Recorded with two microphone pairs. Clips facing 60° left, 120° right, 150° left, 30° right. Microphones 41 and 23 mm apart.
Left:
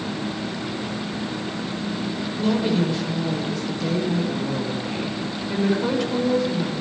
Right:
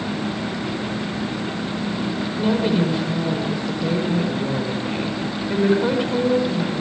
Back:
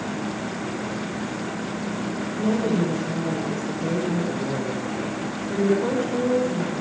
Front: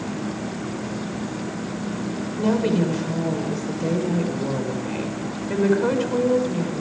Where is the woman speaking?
50° right, 6 m.